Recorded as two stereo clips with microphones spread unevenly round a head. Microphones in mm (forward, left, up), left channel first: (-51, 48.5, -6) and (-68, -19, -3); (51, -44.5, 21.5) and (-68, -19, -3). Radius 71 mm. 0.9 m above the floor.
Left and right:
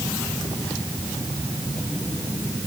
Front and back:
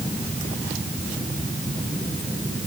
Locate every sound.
Only background noise.